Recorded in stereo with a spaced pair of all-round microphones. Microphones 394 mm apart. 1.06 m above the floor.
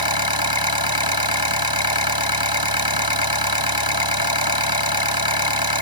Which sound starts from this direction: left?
An engine running, at 0.0 s.